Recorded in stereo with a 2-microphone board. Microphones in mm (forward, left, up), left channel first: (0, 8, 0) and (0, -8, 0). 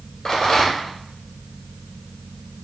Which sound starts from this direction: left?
A rattle, at 0.2 s.